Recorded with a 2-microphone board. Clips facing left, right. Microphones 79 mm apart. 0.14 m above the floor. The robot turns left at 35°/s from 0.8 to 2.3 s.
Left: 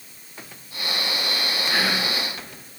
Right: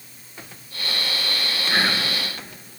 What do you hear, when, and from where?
1.7 s whispering: 20° right (ahead or behind), 2 m; by 2.1 s 30° right (ahead or behind), 2 m